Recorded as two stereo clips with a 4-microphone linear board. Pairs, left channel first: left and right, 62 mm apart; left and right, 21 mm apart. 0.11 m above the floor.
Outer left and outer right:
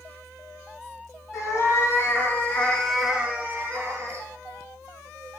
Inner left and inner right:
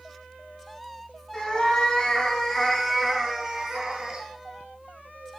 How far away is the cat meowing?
About 1.0 m.